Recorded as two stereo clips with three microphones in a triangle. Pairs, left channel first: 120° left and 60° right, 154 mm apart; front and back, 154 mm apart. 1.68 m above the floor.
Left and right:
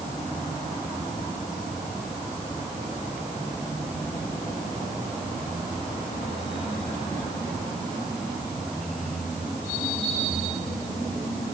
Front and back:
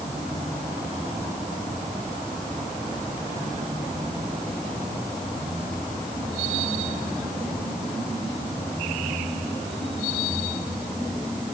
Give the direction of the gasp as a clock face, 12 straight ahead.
I don't hear a gasp.